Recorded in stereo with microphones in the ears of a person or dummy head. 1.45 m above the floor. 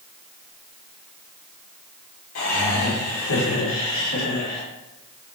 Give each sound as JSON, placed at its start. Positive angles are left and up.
{"t": 2.4, "sound": "laughter", "side_deg": 80, "distance_m": 1.8}